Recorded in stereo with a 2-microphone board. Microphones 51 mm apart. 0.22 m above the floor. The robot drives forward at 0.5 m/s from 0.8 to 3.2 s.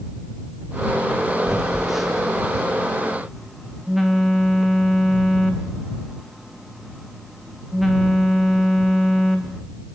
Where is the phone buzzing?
5° right (ahead or behind), 1.7 m; by 9.6 s centre (ahead or behind), 2.5 m.